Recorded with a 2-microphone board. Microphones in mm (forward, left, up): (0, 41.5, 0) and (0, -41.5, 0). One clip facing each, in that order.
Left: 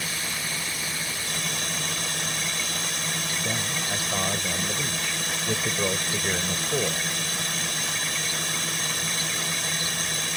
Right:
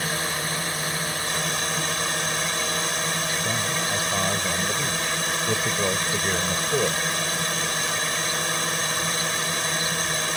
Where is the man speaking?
15° right (ahead or behind).